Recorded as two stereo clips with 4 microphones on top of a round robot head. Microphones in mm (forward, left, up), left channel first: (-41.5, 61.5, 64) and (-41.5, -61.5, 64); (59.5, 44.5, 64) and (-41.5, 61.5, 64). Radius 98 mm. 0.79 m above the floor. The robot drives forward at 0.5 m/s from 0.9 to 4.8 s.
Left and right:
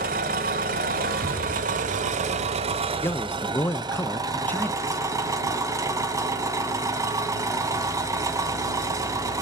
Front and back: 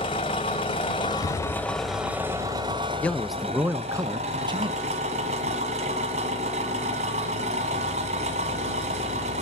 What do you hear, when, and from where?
0.0 s an engine running: 65° right, 0.9 m; by 9.4 s 155° right, 1.8 m
1.2 s an explosion: 55° left, 7.5 m
3.0 s a man speaking: 45° left, 0.6 m; by 4.8 s 165° left, 0.9 m